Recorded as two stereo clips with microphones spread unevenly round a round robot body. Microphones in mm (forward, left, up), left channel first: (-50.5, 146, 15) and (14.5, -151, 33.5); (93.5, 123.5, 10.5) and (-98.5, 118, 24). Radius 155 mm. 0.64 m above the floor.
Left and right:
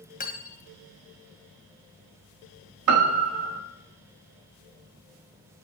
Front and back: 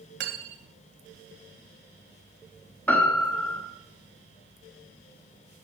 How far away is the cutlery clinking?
About 1.9 m.